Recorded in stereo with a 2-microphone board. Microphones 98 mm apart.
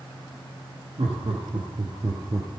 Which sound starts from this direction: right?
Laughter, at 1.0 s.